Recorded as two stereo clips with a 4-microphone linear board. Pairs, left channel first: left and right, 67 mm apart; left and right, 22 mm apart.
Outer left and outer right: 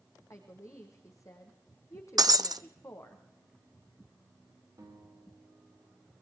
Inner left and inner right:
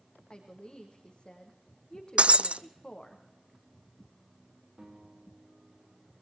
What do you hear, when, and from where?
0.3 s a woman speaking: 50° left (ahead or behind), 5.5 m
2.2 s breaking glass: 70° right (ahead or behind), 0.7 m
4.8 s a guitar: 45° right (ahead or behind), 9.5 m